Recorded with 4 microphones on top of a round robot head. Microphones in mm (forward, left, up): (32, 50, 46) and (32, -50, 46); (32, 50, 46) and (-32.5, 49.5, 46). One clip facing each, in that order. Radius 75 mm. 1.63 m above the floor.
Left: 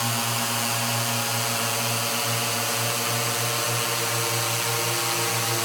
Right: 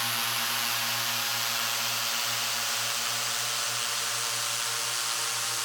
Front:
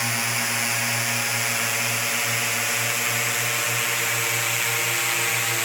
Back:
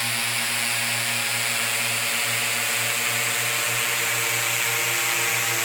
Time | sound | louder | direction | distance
0.0 | a drone | left 6 dB, front 2 dB | 70° left | ?